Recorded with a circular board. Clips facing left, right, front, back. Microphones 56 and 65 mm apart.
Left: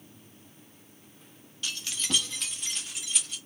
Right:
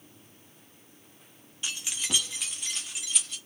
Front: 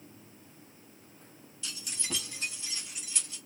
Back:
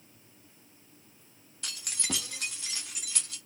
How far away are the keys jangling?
About 0.8 m.